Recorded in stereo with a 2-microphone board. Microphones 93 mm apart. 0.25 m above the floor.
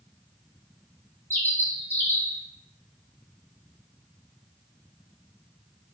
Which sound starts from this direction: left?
A bird, at 1.3 s.